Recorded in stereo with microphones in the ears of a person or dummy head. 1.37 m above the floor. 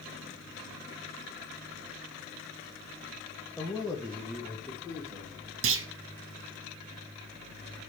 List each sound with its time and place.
3.6 s a man speaking: 5° left (ahead or behind), 0.9 m; by 5.5 s 5° right (ahead or behind), 2 m
5.6 s a clunk: 60° right (ahead or behind), 0.7 m